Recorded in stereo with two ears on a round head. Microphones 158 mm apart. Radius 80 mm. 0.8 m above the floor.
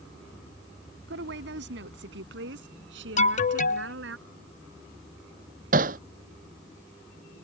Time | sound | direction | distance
1.1 | a woman speaking | 75° right (ahead or behind) | ?
3.2 | an alarm | 45° left (ahead or behind) | ?
5.7 | hammering | 45° right (ahead or behind) | ?